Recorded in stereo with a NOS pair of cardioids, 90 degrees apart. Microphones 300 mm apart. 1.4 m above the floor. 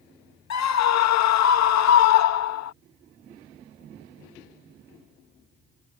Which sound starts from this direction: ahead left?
A scream, at 0.5 s.